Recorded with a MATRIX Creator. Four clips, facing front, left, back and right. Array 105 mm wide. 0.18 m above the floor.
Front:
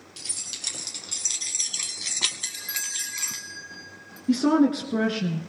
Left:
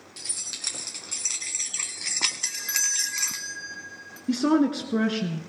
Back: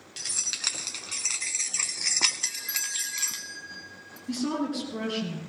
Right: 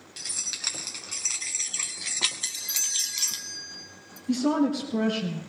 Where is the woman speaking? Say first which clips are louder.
Left 2 dB, front 9 dB; 50° left, 2 m.